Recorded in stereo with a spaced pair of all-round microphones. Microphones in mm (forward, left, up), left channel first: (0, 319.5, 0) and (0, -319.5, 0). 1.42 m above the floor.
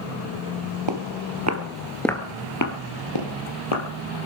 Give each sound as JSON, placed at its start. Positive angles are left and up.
{"t": 0.9, "sound": "footsteps", "side_deg": -40, "distance_m": 2.0}